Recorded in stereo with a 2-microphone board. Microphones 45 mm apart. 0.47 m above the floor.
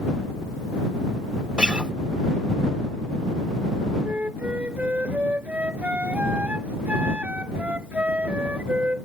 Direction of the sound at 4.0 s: 30° right (ahead or behind).